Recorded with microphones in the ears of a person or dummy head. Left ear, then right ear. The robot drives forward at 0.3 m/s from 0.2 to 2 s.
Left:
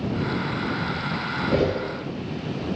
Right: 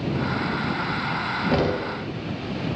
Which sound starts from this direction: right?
Knocking, at 1.5 s.